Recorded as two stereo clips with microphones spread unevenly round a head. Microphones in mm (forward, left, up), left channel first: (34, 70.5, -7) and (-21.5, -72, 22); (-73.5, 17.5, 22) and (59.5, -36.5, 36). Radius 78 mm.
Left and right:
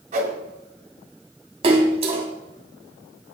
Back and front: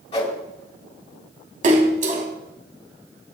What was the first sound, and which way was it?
A whoosh, 155° right.